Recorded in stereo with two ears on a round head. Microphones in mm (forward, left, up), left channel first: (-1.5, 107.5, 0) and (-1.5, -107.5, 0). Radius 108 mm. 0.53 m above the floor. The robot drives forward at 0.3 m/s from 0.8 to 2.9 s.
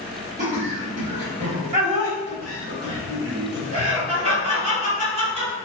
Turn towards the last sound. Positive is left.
turn(degrees=-25)  # may be behind; listen again after turning